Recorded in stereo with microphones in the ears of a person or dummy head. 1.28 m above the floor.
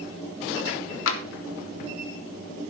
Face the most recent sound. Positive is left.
turn(degrees=75)  # may be behind; listen again after turning